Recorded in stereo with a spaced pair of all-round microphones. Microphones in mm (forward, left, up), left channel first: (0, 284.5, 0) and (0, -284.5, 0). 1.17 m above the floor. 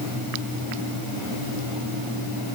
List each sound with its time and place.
Only background noise.